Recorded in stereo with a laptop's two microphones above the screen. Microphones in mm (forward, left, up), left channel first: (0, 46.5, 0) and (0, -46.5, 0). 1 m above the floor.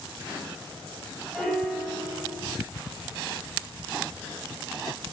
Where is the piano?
Centre (ahead or behind), 7 m.